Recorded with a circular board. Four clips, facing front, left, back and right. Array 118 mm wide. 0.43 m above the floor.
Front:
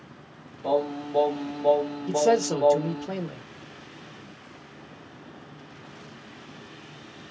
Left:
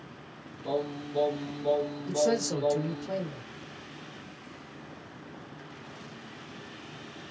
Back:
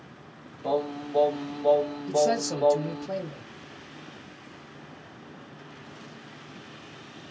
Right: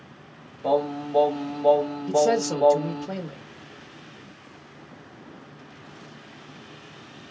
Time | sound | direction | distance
0.6 | singing | 75° right | 1.1 m
2.1 | a man speaking | 30° right | 1.1 m